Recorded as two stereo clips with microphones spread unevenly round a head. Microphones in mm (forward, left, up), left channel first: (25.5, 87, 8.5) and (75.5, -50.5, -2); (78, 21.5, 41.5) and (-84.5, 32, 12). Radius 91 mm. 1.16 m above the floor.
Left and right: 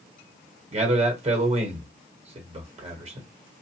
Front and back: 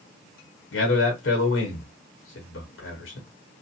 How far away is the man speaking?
About 1.0 m.